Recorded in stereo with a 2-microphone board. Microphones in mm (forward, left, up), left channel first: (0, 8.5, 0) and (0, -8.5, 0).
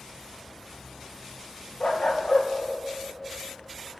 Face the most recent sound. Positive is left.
turn(degrees=70)  # may be behind; listen again after turning